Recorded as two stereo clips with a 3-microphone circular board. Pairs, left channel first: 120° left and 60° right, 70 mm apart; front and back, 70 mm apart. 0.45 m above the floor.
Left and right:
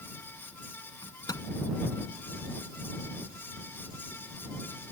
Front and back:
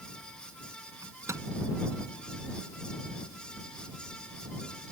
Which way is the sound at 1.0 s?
140° left.